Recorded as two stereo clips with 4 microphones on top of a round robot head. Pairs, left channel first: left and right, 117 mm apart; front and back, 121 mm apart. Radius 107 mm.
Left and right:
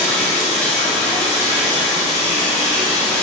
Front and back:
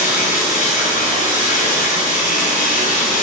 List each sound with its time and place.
0.0 s running water: 10° left, 3 m